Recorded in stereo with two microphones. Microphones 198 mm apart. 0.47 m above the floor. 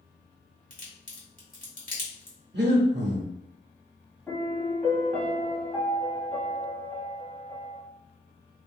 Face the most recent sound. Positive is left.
turn(degrees=10)  # may be behind; listen again after turning